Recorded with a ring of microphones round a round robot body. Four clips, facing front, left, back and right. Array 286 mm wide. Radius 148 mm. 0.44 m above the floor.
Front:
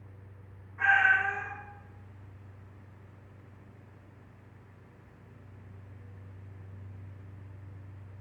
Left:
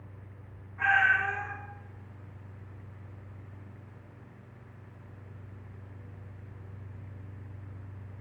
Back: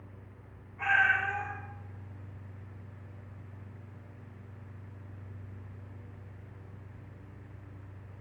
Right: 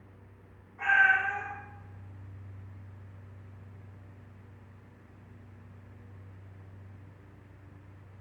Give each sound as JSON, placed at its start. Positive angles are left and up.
{"t": 0.8, "sound": "a cat meowing", "azimuth_deg": 25, "distance_m": 2.5}